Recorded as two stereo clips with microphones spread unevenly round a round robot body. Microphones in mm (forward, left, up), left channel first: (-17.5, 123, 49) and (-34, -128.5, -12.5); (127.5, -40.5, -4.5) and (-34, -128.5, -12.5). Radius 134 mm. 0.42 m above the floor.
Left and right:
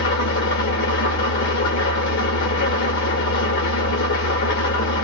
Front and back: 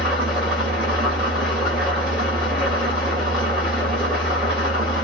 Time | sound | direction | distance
0.0 | an engine running | 125° left | 1.6 m